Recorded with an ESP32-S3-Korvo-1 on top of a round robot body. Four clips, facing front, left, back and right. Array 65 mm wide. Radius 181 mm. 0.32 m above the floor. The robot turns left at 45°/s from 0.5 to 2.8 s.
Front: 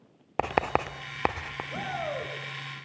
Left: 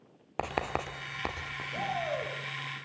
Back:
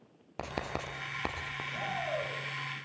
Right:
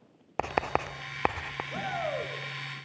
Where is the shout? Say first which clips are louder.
Even, front 2 dB; 40° right, 6.5 m; by 2.3 s 70° right, 6.5 m.